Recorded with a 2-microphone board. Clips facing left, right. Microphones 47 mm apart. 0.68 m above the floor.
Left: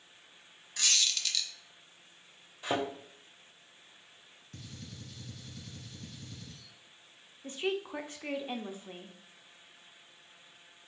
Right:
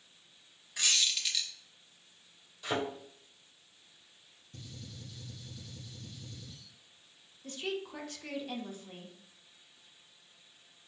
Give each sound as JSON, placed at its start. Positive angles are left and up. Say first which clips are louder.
{"t": 0.8, "sound": "a squeak", "louder": "even", "side_deg": -15, "distance_m": 0.8}
{"t": 2.6, "sound": "a thud", "louder": "left 2 dB", "side_deg": 25, "distance_m": 1.8}
{"t": 4.5, "sound": "a gunshot", "louder": "left 1 dB", "side_deg": 70, "distance_m": 1.9}
{"t": 7.4, "sound": "a woman speaking", "louder": "left 4 dB", "side_deg": 25, "distance_m": 0.5}